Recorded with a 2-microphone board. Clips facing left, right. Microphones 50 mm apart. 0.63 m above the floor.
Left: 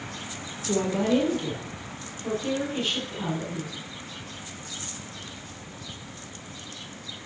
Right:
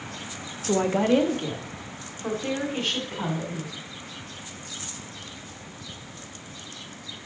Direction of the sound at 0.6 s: 45° right (ahead or behind).